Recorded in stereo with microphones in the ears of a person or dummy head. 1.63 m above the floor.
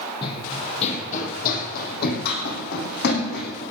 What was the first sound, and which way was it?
Running footsteps, 30° left (ahead or behind).